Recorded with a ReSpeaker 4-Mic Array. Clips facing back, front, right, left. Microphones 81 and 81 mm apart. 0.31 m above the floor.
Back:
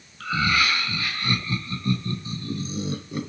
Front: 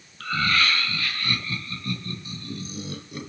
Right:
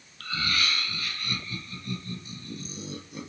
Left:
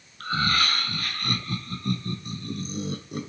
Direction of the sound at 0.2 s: 100° left.